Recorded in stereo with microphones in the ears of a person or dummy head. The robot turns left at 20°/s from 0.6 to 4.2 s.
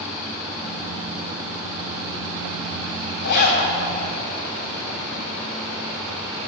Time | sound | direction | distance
3.2 | a zipper | 50° left (ahead or behind) | 4.5 m